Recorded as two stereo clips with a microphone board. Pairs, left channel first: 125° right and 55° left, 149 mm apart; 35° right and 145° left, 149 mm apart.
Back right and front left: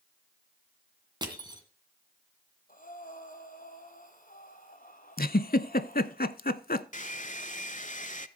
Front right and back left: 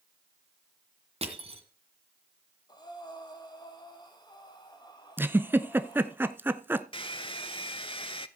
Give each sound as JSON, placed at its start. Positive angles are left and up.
{"t": 1.2, "sound": "crushing", "azimuth_deg": 110, "distance_m": 2.0}
{"t": 2.7, "sound": "breathing", "azimuth_deg": -95, "distance_m": 1.7}
{"t": 5.2, "sound": "a giggle", "azimuth_deg": -140, "distance_m": 0.6}
{"t": 6.9, "sound": "a hair dryer", "azimuth_deg": -90, "distance_m": 0.6}